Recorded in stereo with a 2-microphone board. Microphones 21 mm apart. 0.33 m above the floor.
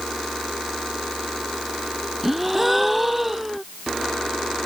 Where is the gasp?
5° right (ahead or behind).